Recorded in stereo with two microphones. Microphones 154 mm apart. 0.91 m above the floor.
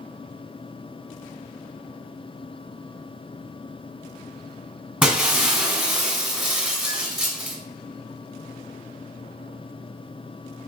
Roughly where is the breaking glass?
Centre.